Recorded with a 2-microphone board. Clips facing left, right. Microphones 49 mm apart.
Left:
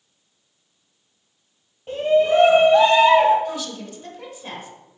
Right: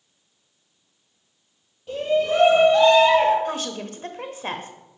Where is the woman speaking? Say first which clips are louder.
Right 1 dB; 45° right (ahead or behind), 1.0 m.